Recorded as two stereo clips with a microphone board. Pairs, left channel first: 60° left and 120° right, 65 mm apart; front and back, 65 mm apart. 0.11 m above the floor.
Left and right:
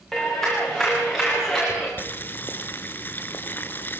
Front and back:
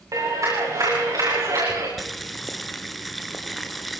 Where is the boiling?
90° left, 1.3 m.